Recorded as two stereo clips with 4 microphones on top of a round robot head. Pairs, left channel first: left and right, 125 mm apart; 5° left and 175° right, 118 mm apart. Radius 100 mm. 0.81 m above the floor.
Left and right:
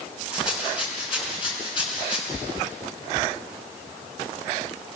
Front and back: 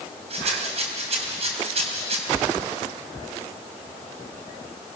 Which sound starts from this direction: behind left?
A rattle, at 0.3 s.